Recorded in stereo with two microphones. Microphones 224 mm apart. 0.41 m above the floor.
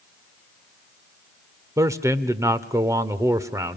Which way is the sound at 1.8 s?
15° right (ahead or behind).